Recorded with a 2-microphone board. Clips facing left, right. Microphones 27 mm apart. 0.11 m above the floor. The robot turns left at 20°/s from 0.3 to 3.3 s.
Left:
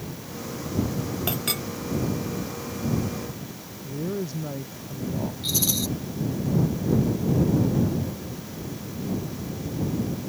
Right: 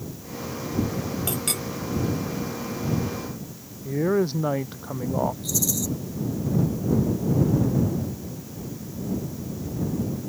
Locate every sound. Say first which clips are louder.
1.3 s a clink: left 1 dB; 15° left (ahead or behind); by 1.6 s 10° left (ahead or behind)
3.8 s a woman speaking: right 8 dB; 55° right (ahead or behind)
5.4 s a rattle: left 1 dB; 50° left (ahead or behind)